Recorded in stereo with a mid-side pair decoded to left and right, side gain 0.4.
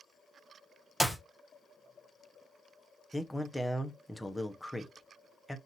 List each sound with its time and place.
1.0 s a clap: 5° right, 0.9 m
3.1 s a man speaking: 10° left, 0.9 m